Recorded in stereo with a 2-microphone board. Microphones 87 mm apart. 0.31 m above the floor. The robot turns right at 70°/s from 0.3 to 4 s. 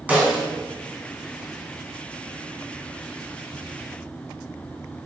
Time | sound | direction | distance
0.1 | a snare drum | 15° right (ahead or behind) | 2.5 m